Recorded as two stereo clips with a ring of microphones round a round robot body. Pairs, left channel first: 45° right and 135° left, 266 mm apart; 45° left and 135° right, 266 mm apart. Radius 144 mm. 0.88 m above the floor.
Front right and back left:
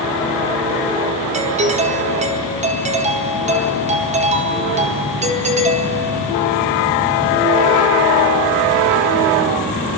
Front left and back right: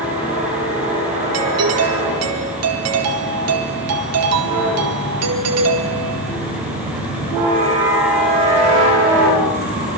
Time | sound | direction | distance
1.3 | a doorbell | 160° right | 4 m